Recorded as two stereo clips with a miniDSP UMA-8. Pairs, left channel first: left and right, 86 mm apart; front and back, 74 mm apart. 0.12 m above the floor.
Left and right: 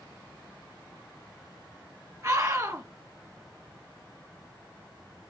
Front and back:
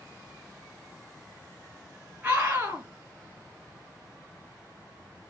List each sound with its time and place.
2.2 s a scream: 120° right, 2.5 m